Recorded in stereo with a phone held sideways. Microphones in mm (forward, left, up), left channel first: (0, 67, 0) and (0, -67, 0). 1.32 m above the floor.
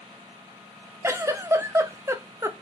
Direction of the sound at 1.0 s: 20° right (ahead or behind).